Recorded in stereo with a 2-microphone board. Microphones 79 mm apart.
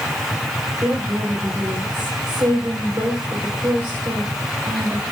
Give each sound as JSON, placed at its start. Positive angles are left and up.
{"t": 0.8, "sound": "a woman speaking", "side_deg": -35, "distance_m": 7.5}